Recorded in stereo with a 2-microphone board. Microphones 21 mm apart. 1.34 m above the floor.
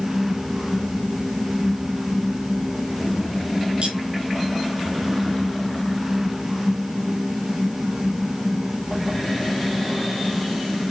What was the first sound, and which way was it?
Cutlery clinking, 60° right (ahead or behind).